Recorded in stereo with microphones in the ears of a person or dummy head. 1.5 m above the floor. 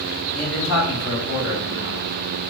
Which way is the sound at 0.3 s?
65° left (ahead or behind).